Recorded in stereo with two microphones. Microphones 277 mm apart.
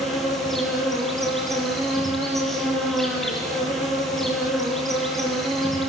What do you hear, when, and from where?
0.0 s an insect: centre (ahead or behind), 7.5 m